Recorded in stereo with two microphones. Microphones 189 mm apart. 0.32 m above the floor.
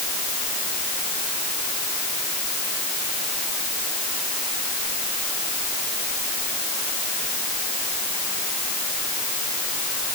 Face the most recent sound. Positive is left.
No sound to turn to.